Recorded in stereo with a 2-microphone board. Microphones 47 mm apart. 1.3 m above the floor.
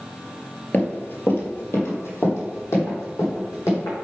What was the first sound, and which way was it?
Running footsteps, 35° left (ahead or behind).